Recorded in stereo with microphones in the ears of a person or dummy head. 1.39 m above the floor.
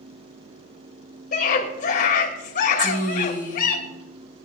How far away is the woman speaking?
About 4 m.